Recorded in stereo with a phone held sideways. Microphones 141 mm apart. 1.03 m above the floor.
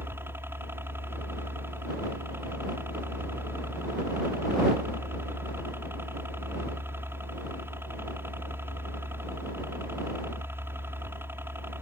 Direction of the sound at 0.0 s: 15° right (ahead or behind).